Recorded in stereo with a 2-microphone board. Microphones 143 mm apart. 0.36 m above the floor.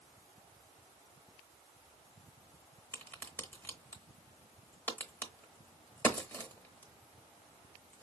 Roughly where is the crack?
Centre.